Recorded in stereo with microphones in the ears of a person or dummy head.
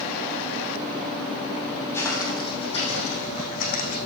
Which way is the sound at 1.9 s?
5° left (ahead or behind).